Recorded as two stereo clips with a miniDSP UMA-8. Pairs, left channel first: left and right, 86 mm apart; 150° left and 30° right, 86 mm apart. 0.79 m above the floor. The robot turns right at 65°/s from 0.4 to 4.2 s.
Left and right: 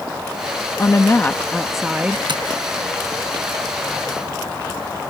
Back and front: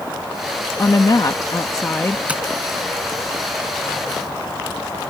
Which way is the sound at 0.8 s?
120° left.